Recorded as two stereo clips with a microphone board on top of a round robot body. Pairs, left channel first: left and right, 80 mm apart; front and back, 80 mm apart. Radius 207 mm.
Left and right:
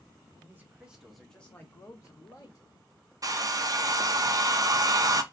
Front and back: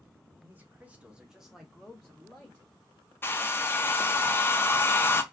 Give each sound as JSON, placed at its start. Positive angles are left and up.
{"t": 0.4, "sound": "a man speaking", "azimuth_deg": -130, "distance_m": 1.2}
{"t": 3.2, "sound": "a hair dryer", "azimuth_deg": -60, "distance_m": 0.7}